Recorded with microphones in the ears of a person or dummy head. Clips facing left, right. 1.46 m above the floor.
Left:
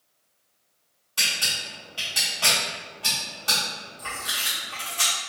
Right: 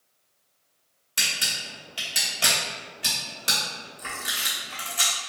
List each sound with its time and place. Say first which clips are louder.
1.2 s a camera shutter: left 1 dB; 30° right (ahead or behind), 0.9 m